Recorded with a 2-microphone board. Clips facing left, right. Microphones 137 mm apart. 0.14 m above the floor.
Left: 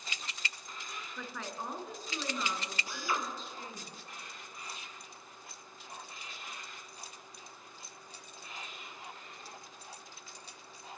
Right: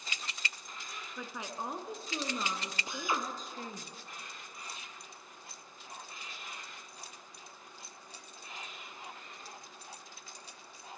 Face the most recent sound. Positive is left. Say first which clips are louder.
# right 1 dB
turn(degrees=-20)  # may be behind; listen again after turning